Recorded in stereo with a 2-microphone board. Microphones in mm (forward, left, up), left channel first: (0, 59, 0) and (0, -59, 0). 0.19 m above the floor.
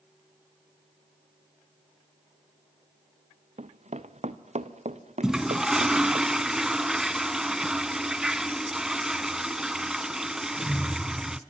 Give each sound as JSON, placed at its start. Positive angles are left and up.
{"t": 3.6, "sound": "running footsteps", "side_deg": -70, "distance_m": 1.0}
{"t": 5.2, "sound": "a toilet flushing", "side_deg": -5, "distance_m": 0.8}